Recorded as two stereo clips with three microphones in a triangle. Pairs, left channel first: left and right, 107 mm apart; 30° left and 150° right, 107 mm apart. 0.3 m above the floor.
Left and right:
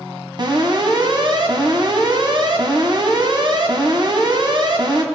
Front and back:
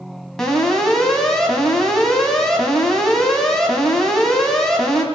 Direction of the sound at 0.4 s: 55° right.